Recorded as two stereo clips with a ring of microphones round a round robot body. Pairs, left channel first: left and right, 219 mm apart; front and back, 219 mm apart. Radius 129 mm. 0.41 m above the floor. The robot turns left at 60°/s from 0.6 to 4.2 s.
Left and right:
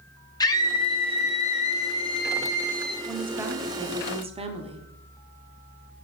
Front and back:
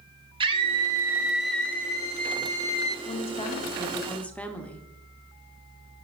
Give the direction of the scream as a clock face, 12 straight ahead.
7 o'clock.